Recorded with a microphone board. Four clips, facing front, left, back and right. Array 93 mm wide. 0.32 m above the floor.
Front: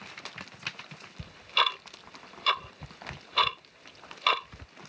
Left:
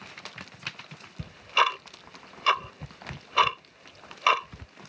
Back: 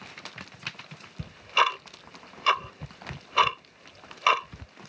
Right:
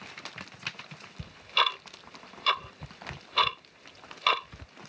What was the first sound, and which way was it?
Ticking, 140° left.